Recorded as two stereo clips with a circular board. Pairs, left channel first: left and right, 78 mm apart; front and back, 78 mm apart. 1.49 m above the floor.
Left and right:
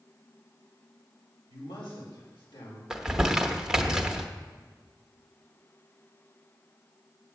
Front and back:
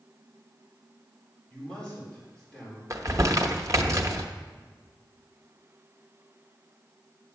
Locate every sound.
1.5 s a man speaking: 80° left, 5 m
2.9 s crumpling: 165° right, 0.9 m